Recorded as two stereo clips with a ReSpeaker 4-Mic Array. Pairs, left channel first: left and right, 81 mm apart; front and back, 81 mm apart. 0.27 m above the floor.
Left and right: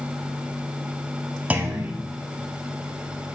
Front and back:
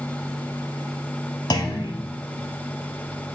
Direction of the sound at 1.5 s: 20° right.